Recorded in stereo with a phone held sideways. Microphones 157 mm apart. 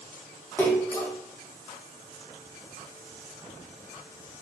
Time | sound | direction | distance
0.6 | a splash | 15° left (ahead or behind) | 1.0 m